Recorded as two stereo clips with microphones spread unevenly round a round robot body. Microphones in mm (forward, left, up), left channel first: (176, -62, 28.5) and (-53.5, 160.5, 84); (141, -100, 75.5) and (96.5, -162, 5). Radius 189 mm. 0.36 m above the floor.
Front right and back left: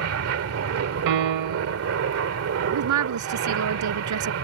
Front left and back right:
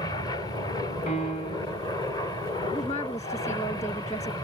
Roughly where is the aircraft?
Behind left.